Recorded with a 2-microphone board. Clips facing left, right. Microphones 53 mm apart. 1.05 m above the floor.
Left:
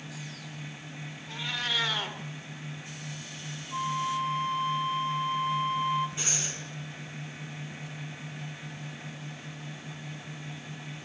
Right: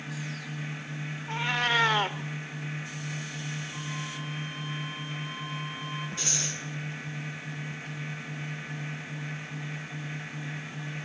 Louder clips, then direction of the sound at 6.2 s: Right 1 dB; 20° left (ahead or behind).